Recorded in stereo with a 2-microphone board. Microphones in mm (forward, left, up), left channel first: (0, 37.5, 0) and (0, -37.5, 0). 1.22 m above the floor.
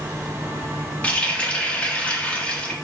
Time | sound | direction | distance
1.0 | a running tap | 15° left (ahead or behind) | 1.2 m